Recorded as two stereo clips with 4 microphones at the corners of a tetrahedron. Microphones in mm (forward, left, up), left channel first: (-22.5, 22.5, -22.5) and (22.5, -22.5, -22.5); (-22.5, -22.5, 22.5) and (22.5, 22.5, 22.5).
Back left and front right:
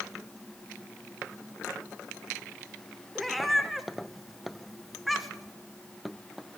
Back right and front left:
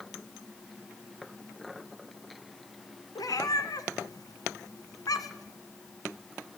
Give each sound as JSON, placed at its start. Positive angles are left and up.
{"t": 3.1, "sound": "a cat meowing", "azimuth_deg": -135, "distance_m": 1.3}